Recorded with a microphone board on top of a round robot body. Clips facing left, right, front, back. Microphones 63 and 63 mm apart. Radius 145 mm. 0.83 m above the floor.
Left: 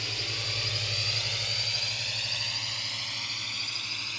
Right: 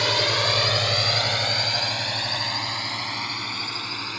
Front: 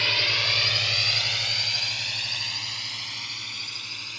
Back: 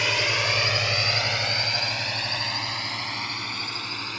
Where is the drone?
105° right; by 4.2 s 135° right.